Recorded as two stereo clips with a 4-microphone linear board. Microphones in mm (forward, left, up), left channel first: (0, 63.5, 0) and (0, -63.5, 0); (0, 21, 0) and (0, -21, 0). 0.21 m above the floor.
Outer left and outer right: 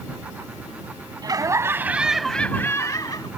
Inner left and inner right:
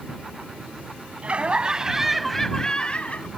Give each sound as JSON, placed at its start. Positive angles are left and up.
{"t": 1.2, "sound": "laughter", "side_deg": -30}